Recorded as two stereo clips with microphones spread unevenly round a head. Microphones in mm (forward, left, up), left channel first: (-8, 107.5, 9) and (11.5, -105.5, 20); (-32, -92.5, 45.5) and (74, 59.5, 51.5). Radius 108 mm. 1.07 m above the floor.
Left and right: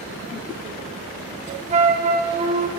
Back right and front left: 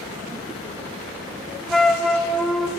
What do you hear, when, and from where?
1.7 s a flute: 40° right, 0.9 m